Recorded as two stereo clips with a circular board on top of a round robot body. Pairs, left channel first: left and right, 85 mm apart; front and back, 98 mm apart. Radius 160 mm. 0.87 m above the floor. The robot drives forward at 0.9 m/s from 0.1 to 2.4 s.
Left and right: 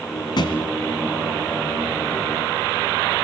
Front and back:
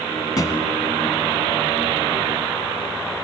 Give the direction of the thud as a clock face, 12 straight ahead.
10 o'clock.